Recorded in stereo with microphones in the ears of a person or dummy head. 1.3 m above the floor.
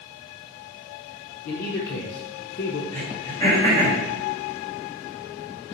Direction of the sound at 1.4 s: 45° left (ahead or behind).